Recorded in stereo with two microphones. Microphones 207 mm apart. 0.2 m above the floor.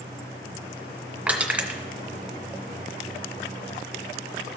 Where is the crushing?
5° right (ahead or behind), 1.1 m.